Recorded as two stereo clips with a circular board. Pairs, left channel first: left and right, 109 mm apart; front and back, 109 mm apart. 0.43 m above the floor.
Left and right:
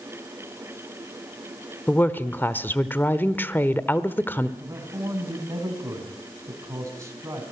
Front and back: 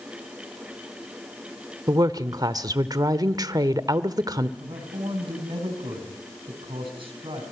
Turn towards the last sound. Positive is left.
turn(degrees=-150)